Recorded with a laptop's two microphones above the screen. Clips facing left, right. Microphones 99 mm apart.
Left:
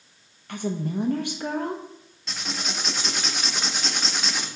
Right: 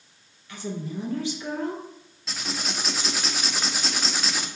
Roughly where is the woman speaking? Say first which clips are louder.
Left 5 dB; left.